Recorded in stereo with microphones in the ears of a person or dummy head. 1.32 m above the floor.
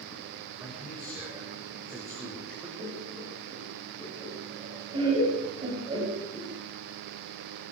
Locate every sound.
0.6 s a man speaking: 15° right (ahead or behind), 7 m
2.8 s laughter: 25° right (ahead or behind), 7.5 m